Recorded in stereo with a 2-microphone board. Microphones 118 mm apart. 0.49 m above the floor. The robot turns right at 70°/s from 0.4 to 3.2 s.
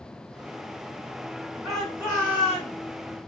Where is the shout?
10° right, 5 m; by 2.8 s 70° left, 5 m.